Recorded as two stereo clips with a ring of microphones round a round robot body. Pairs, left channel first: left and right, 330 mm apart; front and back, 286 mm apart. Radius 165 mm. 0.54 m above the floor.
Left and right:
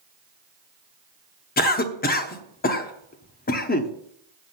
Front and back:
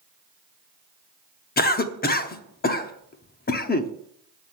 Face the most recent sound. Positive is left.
turn(degrees=40)